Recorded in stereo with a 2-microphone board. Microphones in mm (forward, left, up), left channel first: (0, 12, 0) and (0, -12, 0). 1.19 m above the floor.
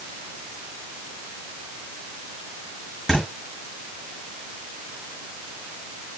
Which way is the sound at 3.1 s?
15° left (ahead or behind).